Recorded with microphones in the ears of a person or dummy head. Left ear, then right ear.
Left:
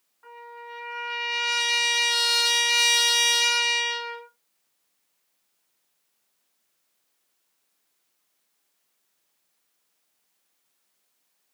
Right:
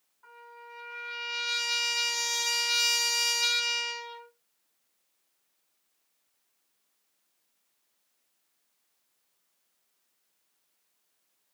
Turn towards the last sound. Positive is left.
turn(degrees=40)  # may be behind; listen again after turning